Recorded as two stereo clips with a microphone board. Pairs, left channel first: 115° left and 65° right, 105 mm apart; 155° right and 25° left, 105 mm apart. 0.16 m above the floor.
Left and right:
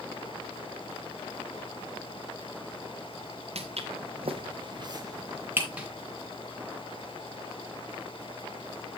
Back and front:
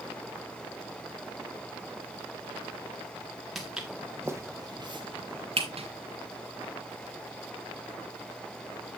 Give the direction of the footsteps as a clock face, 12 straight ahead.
2 o'clock.